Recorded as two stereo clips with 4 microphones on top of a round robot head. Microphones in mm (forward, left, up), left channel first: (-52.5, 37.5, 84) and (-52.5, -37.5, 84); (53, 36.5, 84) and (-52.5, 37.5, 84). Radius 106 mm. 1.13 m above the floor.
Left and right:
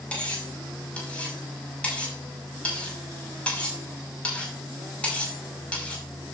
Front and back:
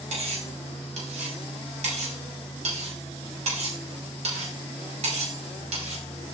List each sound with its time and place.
0.1 s cutlery clinking: 165° left, 5.5 m